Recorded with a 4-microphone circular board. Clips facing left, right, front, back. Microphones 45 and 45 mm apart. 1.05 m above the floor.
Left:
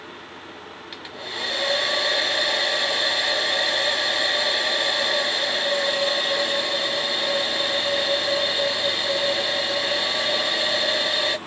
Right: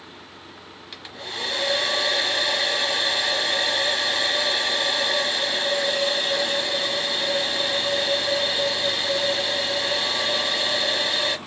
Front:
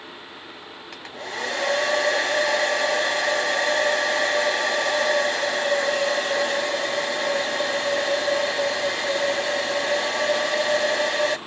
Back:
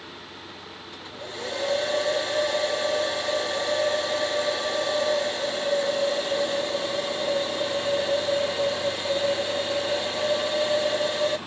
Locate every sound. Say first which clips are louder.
0.9 s a hair dryer: left 1 dB, front 6 dB; 5° left, 0.8 m